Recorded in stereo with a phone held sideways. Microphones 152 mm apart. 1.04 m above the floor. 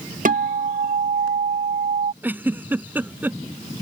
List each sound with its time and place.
0.2 s a guitar: 60° right (ahead or behind)
2.2 s a giggle: 10° right (ahead or behind)